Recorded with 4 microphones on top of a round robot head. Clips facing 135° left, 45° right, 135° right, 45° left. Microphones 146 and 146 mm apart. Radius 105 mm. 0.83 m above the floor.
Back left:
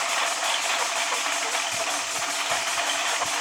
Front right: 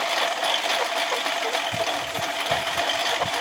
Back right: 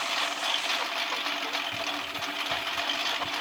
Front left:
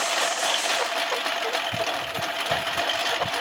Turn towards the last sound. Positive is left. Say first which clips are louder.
# front right 4 dB, front left 7 dB
turn(degrees=10)